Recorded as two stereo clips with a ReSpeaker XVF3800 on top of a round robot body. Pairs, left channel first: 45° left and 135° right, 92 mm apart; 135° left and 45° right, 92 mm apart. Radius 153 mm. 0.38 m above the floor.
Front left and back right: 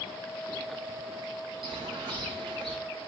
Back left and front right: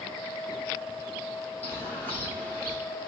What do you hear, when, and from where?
1.6 s a bird: 155° right, 3.5 m